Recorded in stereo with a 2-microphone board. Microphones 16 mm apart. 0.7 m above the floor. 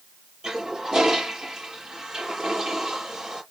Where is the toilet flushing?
45° right (ahead or behind), 7 m.